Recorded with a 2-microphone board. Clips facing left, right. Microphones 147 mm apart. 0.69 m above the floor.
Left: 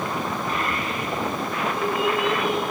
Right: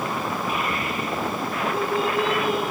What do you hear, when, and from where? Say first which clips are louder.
0.5 s a child speaking: even; 10° right (ahead or behind), 2 m; by 2.6 s 45° right (ahead or behind), 3 m